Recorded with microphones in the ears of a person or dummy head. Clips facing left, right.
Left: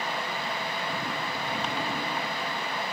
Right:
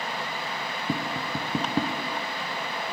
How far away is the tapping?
About 0.7 m.